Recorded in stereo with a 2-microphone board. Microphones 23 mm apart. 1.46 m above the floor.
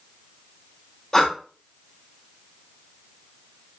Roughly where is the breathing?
Left.